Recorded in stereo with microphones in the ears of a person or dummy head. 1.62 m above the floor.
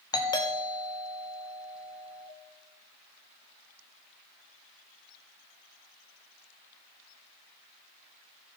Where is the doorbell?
20° left (ahead or behind), 1.3 m.